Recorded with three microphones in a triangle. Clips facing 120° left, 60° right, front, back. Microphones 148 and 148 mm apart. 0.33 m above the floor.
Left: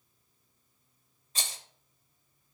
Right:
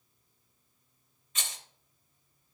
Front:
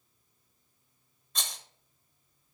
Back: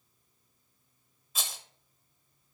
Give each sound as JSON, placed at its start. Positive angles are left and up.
{"t": 1.4, "sound": "a rattle", "azimuth_deg": 95, "distance_m": 0.9}